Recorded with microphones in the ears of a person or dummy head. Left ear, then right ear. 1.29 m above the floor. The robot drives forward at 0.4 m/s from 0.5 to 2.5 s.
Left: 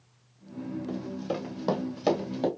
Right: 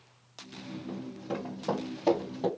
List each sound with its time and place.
0.9 s running footsteps: 35° left (ahead or behind), 2 m